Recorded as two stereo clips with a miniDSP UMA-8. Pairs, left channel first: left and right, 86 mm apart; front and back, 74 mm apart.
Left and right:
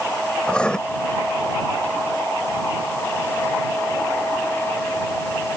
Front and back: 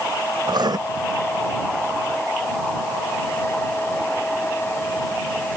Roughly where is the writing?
Behind.